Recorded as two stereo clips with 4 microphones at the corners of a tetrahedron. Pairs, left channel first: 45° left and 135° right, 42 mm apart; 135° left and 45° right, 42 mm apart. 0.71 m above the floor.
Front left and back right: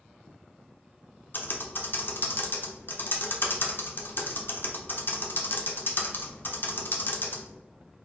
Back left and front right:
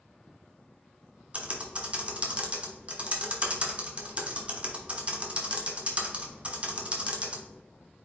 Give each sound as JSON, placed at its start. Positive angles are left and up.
{"t": 1.3, "sound": "typing on a keyboard", "azimuth_deg": 15, "distance_m": 0.8}